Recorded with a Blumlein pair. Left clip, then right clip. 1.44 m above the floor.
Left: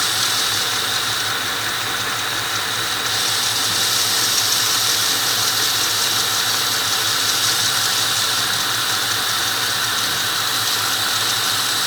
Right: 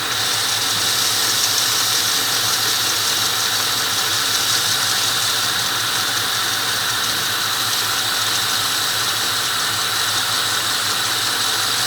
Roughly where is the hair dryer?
I don't hear a hair dryer.